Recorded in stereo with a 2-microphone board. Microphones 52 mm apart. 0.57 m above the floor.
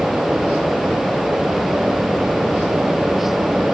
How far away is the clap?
I don't hear a clap.